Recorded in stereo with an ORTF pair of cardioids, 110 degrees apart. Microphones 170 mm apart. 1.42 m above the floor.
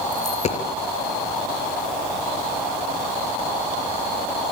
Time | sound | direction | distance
0.1 | a dropped coin | 45° left | 4.5 m